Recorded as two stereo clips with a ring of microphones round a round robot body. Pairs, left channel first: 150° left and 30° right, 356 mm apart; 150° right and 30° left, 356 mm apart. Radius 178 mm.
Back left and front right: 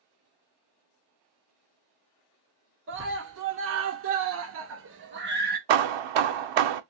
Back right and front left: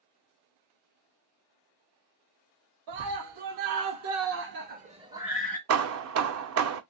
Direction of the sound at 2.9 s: 20° left.